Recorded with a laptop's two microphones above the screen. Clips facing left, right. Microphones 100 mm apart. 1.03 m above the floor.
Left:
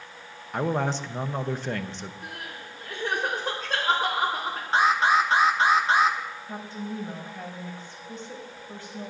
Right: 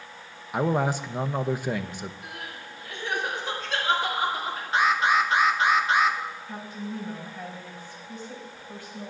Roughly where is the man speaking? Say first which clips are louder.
Right 2 dB; centre.